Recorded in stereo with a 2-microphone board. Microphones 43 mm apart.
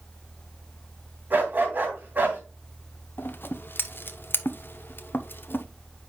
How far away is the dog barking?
About 3 m.